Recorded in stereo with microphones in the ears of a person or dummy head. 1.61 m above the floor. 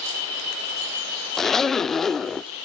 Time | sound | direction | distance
1.4 | a zipper | centre (ahead or behind) | 0.5 m